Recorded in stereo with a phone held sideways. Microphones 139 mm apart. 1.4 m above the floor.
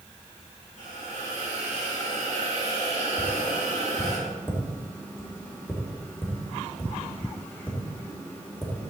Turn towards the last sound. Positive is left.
turn(degrees=15)  # may be behind; listen again after turning